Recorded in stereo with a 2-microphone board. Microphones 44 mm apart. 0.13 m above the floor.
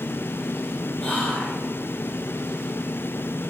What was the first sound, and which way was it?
Whispering, 30° left (ahead or behind).